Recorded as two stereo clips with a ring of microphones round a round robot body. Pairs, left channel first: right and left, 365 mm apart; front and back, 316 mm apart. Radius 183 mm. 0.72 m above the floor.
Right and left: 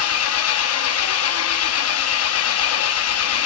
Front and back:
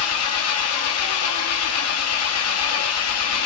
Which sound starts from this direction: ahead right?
An engine running, at 0.0 s.